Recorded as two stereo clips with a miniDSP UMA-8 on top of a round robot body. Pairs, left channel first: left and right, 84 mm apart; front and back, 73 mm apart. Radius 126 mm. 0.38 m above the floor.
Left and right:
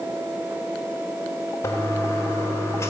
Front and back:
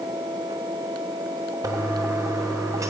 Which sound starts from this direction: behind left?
A toilet flushing, at 1.6 s.